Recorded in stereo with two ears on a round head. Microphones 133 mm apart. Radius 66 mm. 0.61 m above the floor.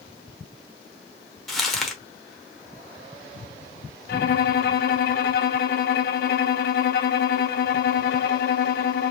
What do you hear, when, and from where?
1.5 s crumpling: centre (ahead or behind), 1.0 m
4.1 s a violin: 70° left (ahead or behind), 0.6 m